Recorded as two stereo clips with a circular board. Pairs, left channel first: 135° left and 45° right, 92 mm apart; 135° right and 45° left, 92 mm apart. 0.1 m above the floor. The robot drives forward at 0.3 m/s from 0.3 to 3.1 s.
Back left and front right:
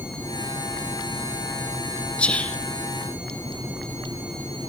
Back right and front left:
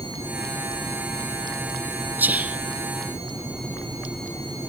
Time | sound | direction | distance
2.2 | whispering | 75° left | 1.3 m